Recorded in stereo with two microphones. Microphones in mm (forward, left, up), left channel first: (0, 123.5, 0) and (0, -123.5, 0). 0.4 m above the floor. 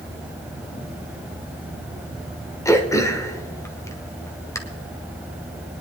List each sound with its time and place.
2.6 s throat clearing: 10° left (ahead or behind), 1.3 m